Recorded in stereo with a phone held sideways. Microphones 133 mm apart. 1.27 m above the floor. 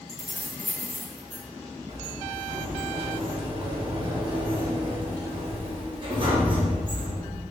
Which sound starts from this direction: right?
A sliding door, at 1.9 s.